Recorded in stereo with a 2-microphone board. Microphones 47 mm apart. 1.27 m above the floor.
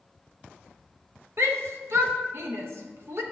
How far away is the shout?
About 0.6 m.